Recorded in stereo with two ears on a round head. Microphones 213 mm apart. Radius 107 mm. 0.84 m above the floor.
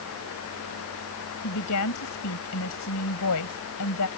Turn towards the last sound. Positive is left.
turn(degrees=80)